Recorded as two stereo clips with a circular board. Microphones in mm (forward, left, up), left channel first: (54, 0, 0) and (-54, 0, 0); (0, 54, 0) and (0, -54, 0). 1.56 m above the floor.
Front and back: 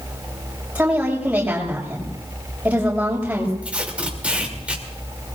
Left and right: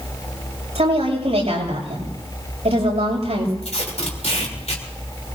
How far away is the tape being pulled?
About 3 m.